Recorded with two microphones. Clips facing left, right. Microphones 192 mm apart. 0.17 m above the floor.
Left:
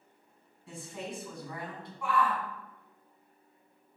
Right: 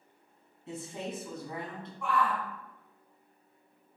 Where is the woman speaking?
25° right (ahead or behind), 1.4 m.